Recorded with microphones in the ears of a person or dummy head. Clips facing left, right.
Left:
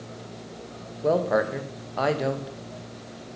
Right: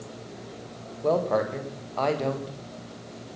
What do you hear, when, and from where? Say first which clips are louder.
1.0 s a woman speaking: left 1 dB; 10° left (ahead or behind), 1.5 m